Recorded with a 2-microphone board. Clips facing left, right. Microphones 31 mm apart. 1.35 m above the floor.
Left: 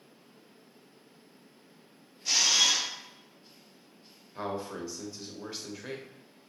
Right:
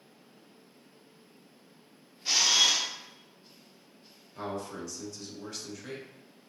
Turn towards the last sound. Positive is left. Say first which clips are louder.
# left 1 dB
turn(degrees=20)  # may be behind; listen again after turning